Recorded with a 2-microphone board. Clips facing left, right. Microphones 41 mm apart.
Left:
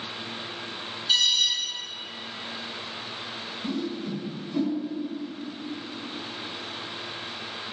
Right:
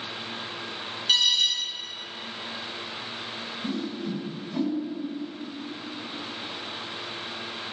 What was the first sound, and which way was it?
An alarm, 60° right (ahead or behind).